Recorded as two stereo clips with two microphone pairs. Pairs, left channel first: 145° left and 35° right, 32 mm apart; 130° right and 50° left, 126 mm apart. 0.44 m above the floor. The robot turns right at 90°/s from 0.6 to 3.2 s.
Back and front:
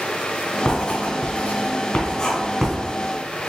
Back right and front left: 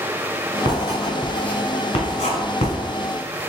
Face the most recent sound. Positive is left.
turn(degrees=-55)